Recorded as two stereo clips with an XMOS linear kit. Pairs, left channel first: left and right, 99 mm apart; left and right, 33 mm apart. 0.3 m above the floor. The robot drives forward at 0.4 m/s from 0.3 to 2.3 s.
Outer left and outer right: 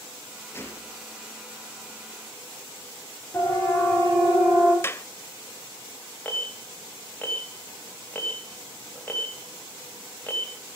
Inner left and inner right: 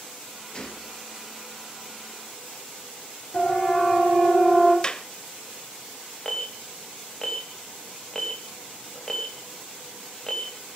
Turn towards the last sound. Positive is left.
turn(degrees=20)  # may be behind; listen again after turning